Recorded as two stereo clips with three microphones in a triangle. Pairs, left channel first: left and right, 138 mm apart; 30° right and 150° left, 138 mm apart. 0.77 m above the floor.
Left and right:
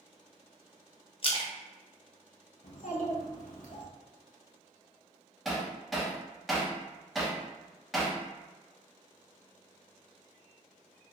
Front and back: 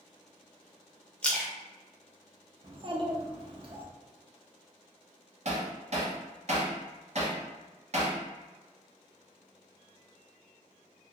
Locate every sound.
1.2 s a splash: 50° left, 0.6 m
2.6 s a child speaking: 100° left, 0.7 m
5.5 s hammering: straight behind, 0.7 m